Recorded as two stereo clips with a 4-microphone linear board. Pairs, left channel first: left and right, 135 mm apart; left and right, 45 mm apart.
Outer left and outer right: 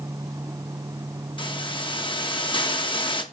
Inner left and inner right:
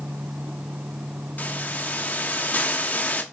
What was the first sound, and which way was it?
A hiss, 40° left (ahead or behind).